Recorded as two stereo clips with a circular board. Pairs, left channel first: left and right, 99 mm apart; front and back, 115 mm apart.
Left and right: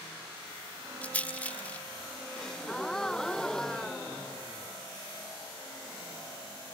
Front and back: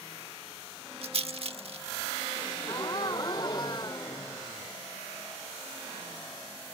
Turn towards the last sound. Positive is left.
turn(degrees=10)